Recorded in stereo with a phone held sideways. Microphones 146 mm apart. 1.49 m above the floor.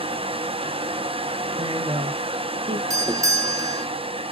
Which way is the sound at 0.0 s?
40° right (ahead or behind).